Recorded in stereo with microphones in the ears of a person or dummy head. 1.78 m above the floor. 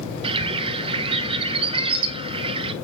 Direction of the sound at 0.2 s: 30° right (ahead or behind).